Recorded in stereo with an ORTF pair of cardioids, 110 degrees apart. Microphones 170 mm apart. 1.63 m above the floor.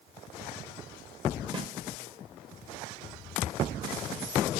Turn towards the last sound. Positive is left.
turn(degrees=-25)